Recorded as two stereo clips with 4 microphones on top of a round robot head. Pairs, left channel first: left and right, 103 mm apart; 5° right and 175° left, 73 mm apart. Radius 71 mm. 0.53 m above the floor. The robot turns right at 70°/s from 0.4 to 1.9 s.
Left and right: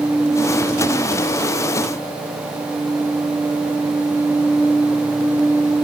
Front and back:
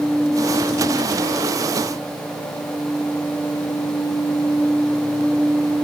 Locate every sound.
Only background noise.